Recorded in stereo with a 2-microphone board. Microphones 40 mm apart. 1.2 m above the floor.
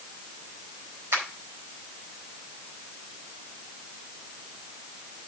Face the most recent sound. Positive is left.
turn(degrees=-75)  # may be behind; listen again after turning